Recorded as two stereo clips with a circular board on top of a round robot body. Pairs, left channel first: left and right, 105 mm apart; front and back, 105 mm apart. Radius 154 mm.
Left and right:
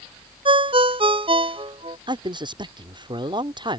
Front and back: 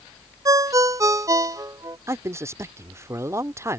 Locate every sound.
0.5 s a ringtone: 120° right
2.1 s a man speaking: 120° right